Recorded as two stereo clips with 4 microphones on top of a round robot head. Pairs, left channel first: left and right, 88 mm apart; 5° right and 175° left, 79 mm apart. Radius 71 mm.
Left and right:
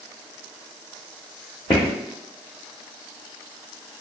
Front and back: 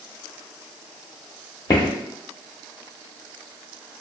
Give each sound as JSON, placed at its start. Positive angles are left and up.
{"t": 1.7, "sound": "footsteps", "azimuth_deg": 25, "distance_m": 0.9}